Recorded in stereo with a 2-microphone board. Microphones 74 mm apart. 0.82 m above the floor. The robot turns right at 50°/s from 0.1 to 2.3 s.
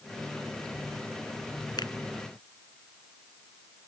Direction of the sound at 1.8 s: 80° left.